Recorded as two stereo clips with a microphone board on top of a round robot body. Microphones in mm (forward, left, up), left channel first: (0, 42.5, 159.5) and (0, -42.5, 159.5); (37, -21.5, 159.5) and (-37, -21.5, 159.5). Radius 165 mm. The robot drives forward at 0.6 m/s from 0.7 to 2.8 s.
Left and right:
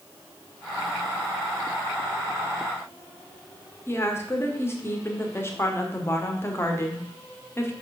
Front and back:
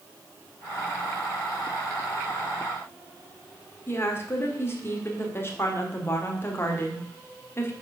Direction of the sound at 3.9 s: 40° left.